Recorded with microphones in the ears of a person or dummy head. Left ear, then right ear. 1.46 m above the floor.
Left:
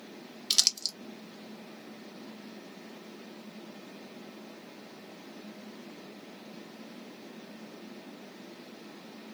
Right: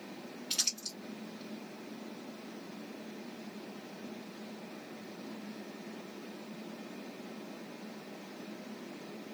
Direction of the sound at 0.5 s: 45° left (ahead or behind).